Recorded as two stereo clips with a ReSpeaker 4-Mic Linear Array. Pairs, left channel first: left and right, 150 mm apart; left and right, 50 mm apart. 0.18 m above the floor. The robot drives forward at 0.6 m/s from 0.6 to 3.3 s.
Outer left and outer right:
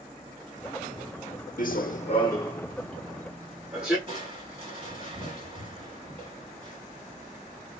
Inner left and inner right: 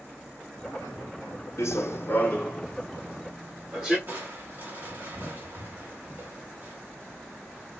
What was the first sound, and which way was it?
Running footsteps, 65° left (ahead or behind).